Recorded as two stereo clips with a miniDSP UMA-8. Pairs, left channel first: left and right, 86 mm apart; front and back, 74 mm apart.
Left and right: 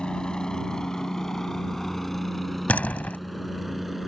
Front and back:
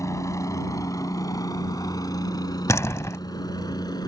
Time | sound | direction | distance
0.0 | a helicopter | 15° left | ?
2.7 | a door slam | 25° left | ?